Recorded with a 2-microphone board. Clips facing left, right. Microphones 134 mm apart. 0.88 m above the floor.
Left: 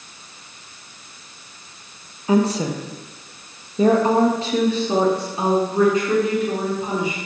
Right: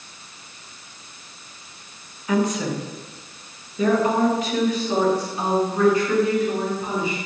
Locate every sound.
2.3 s a woman speaking: 30° left (ahead or behind), 1.2 m; by 7.2 s 20° left (ahead or behind), 3.5 m